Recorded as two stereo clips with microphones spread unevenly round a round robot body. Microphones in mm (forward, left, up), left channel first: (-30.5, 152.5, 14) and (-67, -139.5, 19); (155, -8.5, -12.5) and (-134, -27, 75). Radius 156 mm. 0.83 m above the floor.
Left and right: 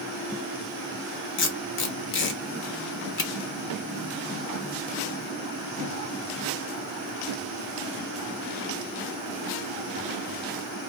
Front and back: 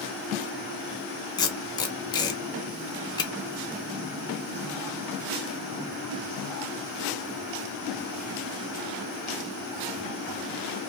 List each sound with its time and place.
1.4 s tape being pulled: 55° left, 0.7 m